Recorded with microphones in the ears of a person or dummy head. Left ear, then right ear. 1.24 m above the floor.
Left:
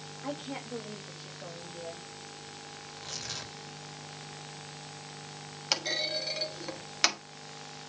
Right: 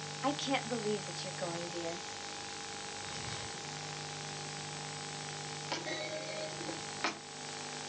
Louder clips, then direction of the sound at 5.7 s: Left 9 dB; 80° left.